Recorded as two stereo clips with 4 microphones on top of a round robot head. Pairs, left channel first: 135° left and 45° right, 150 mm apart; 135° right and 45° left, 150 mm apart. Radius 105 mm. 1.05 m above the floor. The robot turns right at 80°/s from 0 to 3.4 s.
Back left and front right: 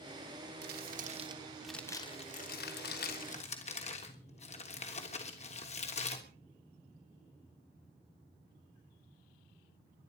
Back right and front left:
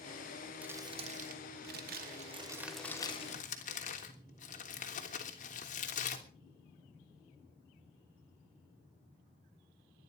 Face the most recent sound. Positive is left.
turn(degrees=-175)